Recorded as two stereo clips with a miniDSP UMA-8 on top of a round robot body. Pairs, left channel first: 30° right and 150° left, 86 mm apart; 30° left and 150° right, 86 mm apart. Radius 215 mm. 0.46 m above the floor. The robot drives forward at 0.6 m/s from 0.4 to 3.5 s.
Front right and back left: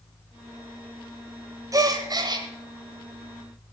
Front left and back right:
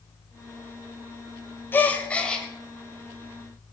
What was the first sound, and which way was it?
A gasp, 100° left.